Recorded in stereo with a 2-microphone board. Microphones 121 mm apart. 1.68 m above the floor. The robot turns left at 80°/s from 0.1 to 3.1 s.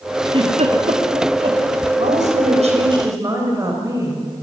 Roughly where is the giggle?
Right.